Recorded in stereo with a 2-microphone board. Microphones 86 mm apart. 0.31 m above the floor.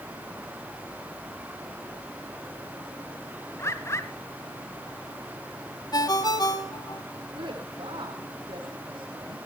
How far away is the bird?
About 1.5 m.